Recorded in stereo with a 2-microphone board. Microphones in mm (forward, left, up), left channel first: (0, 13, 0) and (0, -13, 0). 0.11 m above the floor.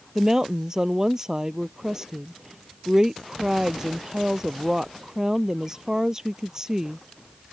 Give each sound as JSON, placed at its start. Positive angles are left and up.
{"t": 0.1, "sound": "a woman speaking", "side_deg": -20}